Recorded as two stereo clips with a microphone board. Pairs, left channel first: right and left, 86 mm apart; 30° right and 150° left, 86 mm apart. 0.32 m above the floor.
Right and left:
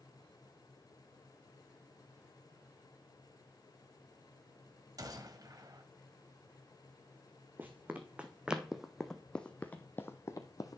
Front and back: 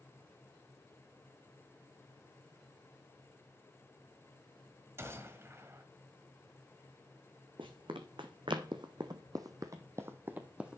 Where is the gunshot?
100° left, 1.5 m.